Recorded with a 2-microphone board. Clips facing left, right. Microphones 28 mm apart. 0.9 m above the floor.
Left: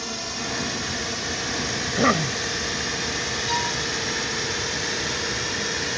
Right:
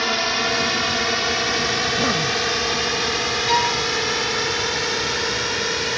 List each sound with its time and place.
0.0 s a drone: 45° right (ahead or behind); by 6.0 s 25° right (ahead or behind)
1.8 s a cough: 20° left (ahead or behind)
3.5 s a violin: 30° right (ahead or behind)